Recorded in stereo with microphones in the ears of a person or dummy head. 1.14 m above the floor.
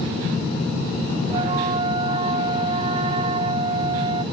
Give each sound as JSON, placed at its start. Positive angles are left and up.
{"t": 1.3, "sound": "a flute", "side_deg": -30}